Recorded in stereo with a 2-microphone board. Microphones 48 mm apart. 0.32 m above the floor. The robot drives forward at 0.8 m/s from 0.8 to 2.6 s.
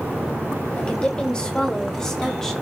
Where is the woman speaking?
25° left (ahead or behind), 1.2 m; by 2.5 s 15° left (ahead or behind), 2 m.